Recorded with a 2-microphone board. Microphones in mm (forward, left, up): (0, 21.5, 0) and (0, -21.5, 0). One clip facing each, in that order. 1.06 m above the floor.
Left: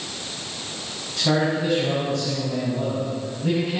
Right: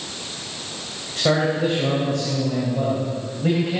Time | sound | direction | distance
1.2 | a man speaking | 60° right (ahead or behind) | 5 m